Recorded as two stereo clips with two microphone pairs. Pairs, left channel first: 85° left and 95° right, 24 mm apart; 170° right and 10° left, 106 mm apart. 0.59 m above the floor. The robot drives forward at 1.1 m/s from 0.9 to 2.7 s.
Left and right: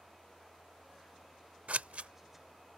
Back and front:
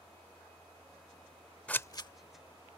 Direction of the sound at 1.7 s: 90° right.